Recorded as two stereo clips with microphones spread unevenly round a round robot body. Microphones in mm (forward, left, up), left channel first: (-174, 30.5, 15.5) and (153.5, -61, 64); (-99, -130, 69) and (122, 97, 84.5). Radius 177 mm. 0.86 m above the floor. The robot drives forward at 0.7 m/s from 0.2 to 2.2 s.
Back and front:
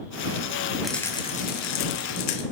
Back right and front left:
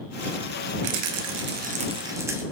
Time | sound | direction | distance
0.8 | a rattle | 75° left | 1.0 m